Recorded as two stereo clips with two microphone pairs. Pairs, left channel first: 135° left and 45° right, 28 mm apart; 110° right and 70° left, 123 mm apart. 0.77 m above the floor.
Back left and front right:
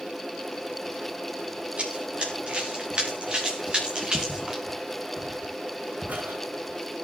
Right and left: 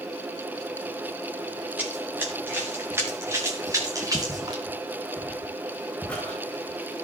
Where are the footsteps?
20° right, 5.5 m; by 7.0 s 35° right, 4.5 m.